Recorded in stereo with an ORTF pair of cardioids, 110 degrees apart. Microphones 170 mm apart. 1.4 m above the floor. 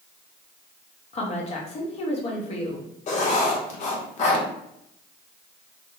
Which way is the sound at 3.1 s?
45° left.